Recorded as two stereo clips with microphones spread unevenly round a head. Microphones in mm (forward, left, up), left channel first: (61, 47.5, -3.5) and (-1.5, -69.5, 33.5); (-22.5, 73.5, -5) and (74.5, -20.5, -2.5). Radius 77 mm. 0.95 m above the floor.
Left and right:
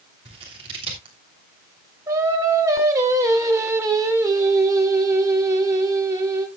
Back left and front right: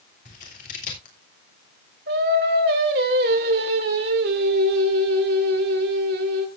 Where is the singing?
50° right, 2.5 m.